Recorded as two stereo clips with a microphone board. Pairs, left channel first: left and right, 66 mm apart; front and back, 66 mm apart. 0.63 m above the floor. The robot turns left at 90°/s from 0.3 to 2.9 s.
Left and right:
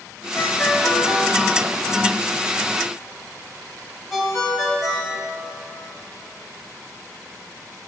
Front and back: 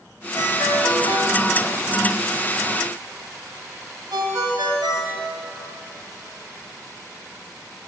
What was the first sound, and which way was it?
A ringtone, 50° left.